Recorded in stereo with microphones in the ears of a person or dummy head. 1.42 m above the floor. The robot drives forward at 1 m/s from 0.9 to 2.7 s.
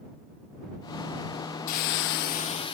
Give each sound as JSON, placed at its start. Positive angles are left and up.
{"t": 1.7, "sound": "a hiss", "side_deg": 40, "distance_m": 0.6}